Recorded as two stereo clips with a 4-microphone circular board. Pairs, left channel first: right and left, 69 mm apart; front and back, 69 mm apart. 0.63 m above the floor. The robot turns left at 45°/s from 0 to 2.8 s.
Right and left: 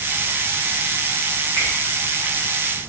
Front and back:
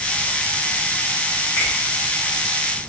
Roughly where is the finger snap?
Ahead right.